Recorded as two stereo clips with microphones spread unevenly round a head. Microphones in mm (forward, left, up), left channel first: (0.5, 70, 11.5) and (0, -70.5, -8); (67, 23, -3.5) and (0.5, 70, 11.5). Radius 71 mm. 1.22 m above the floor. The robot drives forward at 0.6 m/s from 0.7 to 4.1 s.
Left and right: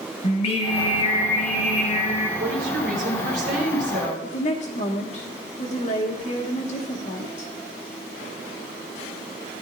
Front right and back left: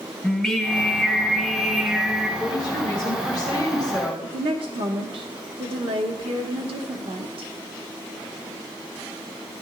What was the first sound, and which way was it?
Singing, 50° left.